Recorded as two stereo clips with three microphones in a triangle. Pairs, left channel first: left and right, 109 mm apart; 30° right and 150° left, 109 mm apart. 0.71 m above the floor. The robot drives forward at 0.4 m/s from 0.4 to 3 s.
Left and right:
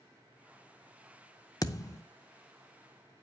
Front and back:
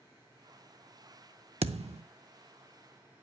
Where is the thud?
145° left, 0.5 m; by 2.0 s 150° left, 0.7 m.